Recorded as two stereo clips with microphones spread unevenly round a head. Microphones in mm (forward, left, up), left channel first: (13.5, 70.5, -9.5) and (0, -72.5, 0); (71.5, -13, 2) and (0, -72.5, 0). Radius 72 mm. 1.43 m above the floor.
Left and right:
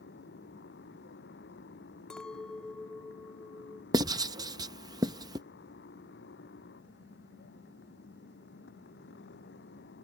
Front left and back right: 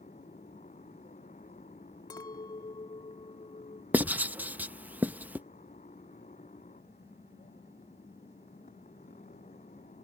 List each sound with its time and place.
0.0 s a motorcycle: 75° left
2.1 s a clink: straight ahead
3.9 s writing: 85° right